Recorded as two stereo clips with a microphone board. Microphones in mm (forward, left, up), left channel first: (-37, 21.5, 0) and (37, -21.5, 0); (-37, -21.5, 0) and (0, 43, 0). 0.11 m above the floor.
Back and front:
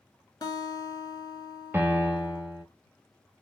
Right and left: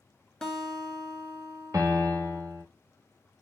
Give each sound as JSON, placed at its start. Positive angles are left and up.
{"t": 0.4, "sound": "a guitar", "azimuth_deg": 160, "distance_m": 0.6}
{"t": 1.7, "sound": "a piano", "azimuth_deg": 30, "distance_m": 1.1}